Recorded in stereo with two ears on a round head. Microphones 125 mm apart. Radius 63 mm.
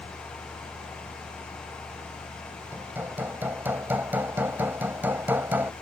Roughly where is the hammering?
Centre.